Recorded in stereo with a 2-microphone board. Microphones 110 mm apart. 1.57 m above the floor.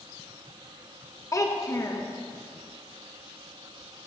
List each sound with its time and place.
1.3 s a child speaking: 30° left (ahead or behind), 0.8 m